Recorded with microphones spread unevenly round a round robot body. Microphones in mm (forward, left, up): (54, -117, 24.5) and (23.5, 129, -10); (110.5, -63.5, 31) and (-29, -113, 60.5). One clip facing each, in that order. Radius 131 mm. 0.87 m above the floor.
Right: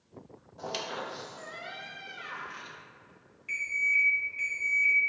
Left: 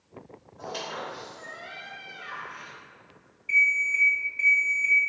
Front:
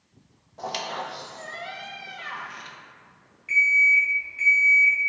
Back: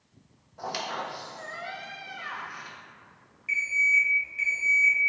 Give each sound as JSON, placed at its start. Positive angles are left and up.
{"t": 0.6, "sound": "a squeak", "azimuth_deg": -45, "distance_m": 0.7}
{"t": 3.5, "sound": "an alarm clock", "azimuth_deg": -95, "distance_m": 1.7}